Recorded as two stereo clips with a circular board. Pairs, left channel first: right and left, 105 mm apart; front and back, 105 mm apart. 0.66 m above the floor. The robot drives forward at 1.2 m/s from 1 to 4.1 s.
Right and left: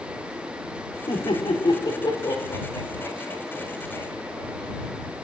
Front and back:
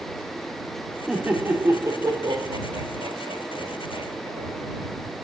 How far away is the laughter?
About 2.0 m.